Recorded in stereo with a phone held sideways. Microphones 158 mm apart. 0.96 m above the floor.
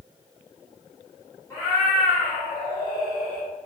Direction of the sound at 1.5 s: 20° left (ahead or behind).